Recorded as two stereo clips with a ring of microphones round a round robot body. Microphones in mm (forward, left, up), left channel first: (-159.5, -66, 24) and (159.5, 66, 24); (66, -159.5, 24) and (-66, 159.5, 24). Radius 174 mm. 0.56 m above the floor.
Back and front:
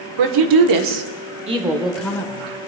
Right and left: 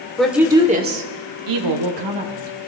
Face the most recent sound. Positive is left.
turn(degrees=130)